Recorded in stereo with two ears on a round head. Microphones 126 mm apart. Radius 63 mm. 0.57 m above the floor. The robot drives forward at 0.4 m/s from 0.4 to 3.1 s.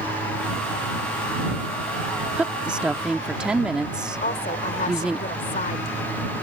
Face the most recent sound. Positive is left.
turn(degrees=55)  # may be behind; listen again after turning